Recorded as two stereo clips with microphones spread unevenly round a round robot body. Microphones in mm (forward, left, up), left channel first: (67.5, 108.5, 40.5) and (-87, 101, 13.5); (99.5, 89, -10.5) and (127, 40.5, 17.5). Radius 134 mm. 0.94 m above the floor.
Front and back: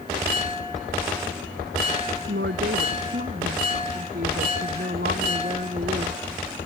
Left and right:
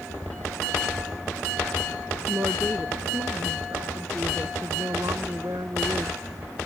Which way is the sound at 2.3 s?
135° right.